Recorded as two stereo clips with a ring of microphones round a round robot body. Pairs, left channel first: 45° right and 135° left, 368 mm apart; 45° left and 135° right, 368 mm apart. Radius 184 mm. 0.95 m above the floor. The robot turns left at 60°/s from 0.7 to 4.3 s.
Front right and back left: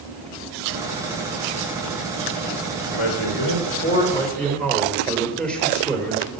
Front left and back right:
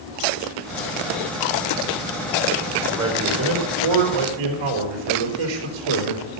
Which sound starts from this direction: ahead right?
A man speaking, at 2.9 s.